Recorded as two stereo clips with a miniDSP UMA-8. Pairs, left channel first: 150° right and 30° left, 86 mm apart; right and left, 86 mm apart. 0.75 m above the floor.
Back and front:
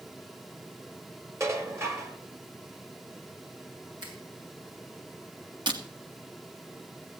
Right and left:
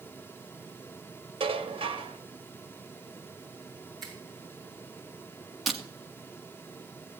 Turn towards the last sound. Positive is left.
turn(degrees=0)